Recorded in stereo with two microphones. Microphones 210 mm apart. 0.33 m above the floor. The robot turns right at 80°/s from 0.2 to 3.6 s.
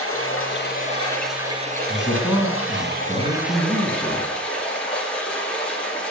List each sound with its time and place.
0.0 s running water: 95° left, 3 m; by 6.1 s 5° left, 3 m
1.9 s a man speaking: 160° left, 2.5 m; by 4.2 s 65° right, 2.5 m